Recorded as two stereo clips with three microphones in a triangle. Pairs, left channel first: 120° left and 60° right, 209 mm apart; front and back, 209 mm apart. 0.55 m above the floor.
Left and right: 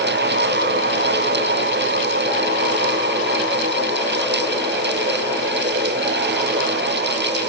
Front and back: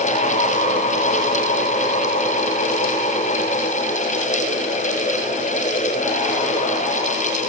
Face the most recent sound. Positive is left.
No sound to turn to.